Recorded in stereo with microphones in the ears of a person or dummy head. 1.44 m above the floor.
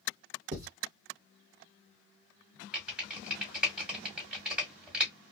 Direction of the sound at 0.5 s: 50° right (ahead or behind).